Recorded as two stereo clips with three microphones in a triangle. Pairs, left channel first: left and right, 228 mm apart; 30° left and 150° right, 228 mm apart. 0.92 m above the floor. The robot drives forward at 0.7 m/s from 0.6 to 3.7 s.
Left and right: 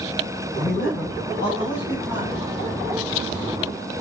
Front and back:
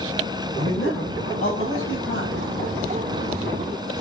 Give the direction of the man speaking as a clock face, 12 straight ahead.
10 o'clock.